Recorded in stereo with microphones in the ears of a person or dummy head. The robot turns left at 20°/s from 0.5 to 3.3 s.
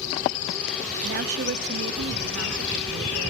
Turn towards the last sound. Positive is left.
turn(degrees=-110)